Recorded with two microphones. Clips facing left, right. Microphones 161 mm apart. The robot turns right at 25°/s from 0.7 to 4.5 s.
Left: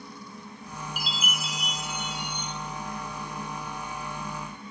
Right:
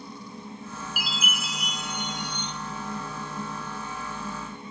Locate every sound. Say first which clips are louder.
1.0 s a chime: right 1 dB; 10° right (ahead or behind), 0.7 m; by 2.5 s 10° left (ahead or behind), 0.7 m